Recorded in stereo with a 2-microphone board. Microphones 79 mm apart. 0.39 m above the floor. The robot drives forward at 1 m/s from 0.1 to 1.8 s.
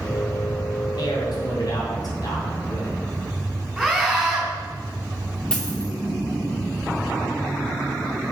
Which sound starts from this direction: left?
A man speaking, at 1.0 s.